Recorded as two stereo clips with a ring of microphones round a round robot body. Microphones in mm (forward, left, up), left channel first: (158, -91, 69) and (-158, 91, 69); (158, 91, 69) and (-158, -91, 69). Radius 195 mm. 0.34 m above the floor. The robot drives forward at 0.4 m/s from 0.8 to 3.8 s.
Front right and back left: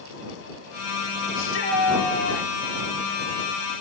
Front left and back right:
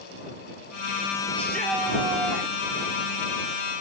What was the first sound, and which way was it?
A shout, 55° right.